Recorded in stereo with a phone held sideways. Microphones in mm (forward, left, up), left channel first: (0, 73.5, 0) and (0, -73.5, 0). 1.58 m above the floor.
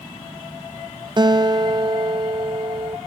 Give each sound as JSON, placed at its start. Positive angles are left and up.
{"t": 1.2, "sound": "a guitar", "side_deg": -30, "distance_m": 0.6}